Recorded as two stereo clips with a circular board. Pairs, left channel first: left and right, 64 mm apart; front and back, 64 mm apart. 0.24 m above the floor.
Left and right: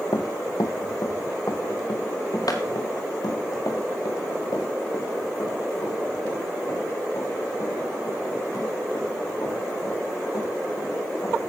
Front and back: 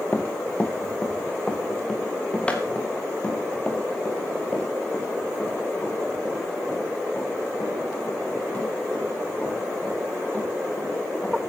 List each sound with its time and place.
0.1 s running footsteps: 65° left, 1.2 m; by 11.5 s 75° left, 9.5 m